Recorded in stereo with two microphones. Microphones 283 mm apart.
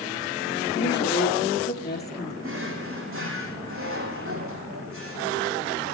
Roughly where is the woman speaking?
Left.